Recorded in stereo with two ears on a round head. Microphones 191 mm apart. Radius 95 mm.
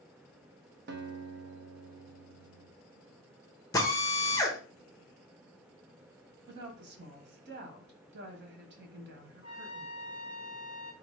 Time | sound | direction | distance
0.9 | a guitar | 50° right (ahead or behind) | 0.7 m
3.7 | a drill | 15° left (ahead or behind) | 0.8 m
6.5 | a woman speaking | 50° right (ahead or behind) | 1.0 m
9.4 | a trumpet | 35° right (ahead or behind) | 1.5 m